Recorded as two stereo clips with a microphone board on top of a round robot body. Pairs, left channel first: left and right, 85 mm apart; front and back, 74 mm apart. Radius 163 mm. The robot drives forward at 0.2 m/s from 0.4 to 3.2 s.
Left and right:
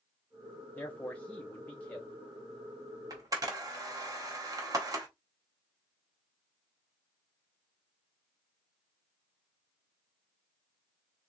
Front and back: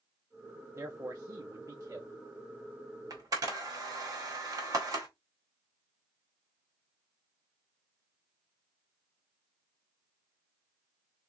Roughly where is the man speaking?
Behind left.